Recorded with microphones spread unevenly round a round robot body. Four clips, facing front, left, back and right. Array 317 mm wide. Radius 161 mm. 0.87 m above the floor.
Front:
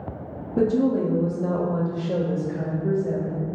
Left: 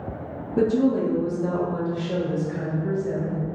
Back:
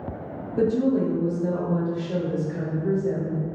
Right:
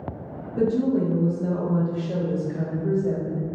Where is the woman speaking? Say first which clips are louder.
Left 1 dB, front 1 dB; 45° left, 1.2 m; by 3.5 s 45° right, 1.4 m.